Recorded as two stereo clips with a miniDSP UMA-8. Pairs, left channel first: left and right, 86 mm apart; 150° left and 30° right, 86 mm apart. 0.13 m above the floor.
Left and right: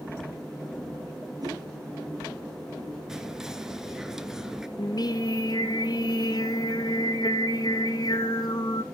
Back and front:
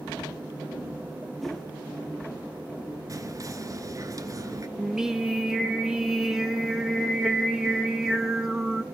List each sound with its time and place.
1.4 s a whoosh: 125° right, 2.5 m
3.1 s whispering: 10° right, 1.6 m
4.8 s singing: 55° left, 1.1 m